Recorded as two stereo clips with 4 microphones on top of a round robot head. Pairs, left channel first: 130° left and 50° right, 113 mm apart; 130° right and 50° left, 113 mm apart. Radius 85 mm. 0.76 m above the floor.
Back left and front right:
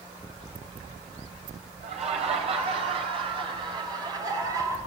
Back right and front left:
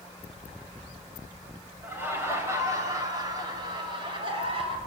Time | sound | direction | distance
1.8 | laughter | 25° right | 5 m